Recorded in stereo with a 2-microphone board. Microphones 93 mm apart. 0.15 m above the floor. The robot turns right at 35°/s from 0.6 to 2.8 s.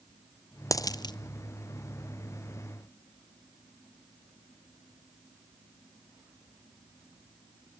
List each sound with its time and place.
0.7 s a dropped coin: 35° left (ahead or behind), 0.5 m; by 1.1 s 50° left (ahead or behind), 0.5 m